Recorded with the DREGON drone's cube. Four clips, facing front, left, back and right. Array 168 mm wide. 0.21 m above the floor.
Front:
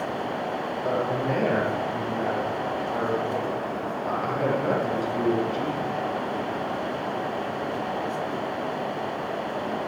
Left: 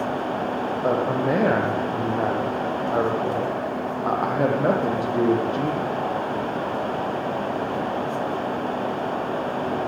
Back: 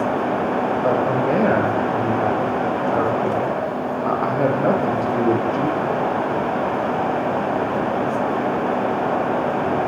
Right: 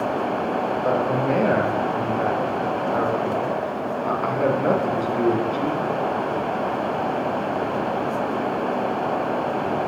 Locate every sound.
0.8 s a man speaking: 145° left, 7 m